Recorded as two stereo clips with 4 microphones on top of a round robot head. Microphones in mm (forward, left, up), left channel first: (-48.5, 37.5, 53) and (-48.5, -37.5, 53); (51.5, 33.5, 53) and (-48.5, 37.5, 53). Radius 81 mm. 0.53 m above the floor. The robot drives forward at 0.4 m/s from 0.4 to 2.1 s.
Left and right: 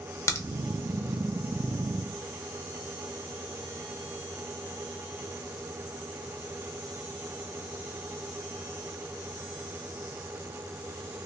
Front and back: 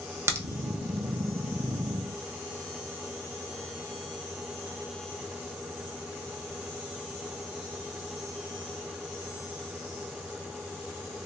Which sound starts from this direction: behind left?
A crack, at 0.3 s.